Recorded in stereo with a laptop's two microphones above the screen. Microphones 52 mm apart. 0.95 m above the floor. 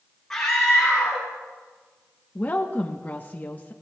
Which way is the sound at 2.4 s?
35° left (ahead or behind).